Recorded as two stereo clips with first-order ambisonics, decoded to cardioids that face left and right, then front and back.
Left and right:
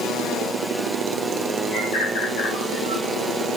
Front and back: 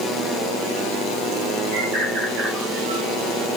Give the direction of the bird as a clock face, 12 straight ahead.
8 o'clock.